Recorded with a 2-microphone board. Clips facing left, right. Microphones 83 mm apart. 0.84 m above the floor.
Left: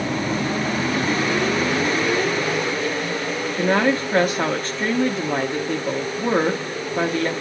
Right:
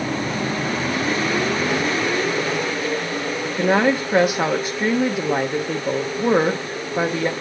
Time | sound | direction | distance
3.5 | a woman speaking | 10° right (ahead or behind) | 0.9 m